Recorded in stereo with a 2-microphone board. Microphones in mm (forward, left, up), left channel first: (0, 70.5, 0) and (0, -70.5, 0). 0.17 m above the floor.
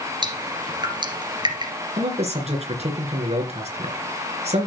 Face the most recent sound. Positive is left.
turn(degrees=-50)  # may be behind; listen again after turning